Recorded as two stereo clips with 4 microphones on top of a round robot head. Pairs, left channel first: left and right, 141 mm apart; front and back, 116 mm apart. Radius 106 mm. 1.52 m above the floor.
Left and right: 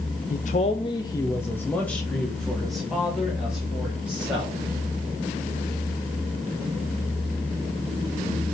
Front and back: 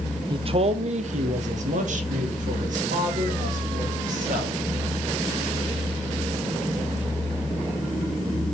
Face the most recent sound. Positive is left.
turn(degrees=-175)